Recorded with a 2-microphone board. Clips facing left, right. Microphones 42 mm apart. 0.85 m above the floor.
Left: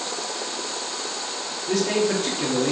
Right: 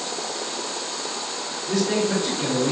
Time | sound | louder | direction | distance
1.7 | a man speaking | left 1 dB | 65° left (ahead or behind) | 1.1 m